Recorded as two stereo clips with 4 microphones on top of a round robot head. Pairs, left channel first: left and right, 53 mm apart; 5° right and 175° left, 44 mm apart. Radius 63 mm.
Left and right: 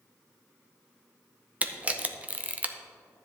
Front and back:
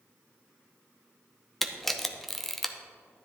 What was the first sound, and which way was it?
A camera shutter, 90° right.